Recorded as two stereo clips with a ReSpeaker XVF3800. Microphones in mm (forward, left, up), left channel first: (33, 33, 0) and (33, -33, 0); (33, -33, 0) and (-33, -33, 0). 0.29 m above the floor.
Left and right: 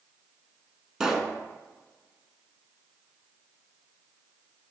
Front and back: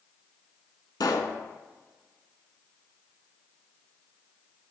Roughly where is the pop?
Ahead.